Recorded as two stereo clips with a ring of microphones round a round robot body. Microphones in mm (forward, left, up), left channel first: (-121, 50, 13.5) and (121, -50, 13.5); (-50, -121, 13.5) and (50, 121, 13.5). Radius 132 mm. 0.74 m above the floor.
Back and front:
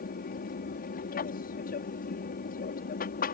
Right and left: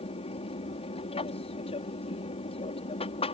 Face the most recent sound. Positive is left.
turn(degrees=-170)